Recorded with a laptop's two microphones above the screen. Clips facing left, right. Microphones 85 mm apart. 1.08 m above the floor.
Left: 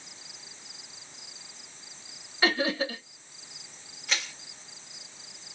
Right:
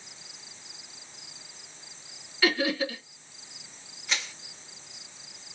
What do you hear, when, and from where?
2.4 s laughter: 35° left (ahead or behind), 1.3 m
4.1 s crushing: 5° left (ahead or behind), 2.5 m